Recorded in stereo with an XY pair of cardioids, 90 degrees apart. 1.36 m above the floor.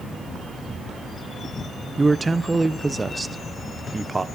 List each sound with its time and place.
2.0 s a man speaking: 20° right, 0.8 m